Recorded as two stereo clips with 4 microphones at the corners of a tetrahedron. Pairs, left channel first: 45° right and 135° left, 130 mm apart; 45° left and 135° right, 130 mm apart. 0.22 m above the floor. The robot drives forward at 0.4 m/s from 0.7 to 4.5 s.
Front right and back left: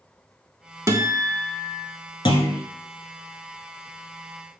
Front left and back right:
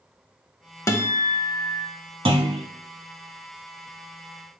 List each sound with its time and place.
0.9 s a guitar: 95° left, 0.6 m; by 1.9 s 140° left, 0.7 m
2.2 s a clunk: 90° right, 0.8 m; by 2.6 s 105° right, 0.8 m